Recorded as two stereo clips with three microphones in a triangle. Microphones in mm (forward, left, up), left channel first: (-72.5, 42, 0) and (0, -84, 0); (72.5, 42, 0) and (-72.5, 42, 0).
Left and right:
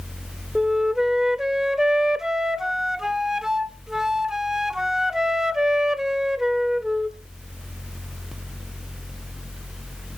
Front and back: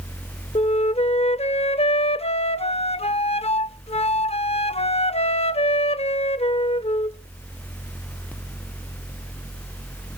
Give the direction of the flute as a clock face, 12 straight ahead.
11 o'clock.